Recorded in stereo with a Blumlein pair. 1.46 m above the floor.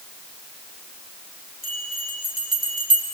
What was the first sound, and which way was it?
A bell, 20° right.